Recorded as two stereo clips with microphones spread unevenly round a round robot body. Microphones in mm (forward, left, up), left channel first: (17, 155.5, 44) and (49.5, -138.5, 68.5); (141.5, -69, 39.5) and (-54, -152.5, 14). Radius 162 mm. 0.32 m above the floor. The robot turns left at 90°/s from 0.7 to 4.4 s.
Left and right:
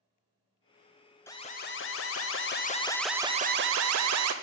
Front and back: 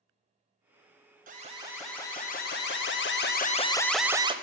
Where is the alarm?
170° left, 0.9 m; by 4.3 s 105° right, 0.9 m.